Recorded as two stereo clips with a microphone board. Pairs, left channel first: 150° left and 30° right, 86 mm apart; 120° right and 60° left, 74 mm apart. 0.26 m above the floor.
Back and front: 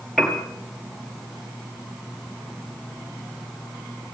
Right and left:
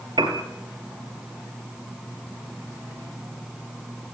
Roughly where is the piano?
Ahead left.